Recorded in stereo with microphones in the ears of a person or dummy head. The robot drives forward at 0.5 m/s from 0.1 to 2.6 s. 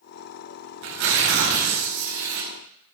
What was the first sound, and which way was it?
Tearing paper, 70° right (ahead or behind).